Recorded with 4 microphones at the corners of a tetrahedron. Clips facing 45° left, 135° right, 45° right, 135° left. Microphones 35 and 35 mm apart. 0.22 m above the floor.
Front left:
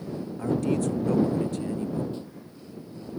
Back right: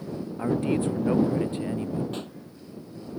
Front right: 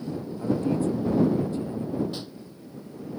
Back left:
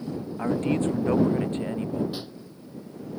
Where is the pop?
145° right.